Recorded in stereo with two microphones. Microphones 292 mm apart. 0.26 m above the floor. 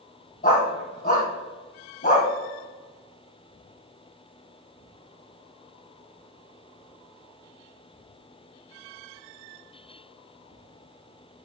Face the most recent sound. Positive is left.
turn(degrees=30)  # may be behind; listen again after turning